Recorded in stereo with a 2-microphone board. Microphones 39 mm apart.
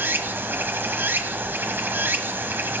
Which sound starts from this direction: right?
Running water, at 0.0 s.